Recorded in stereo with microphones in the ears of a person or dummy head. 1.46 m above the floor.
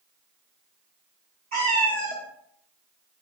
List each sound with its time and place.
1.5 s a cat meowing: 50° right (ahead or behind), 2.5 m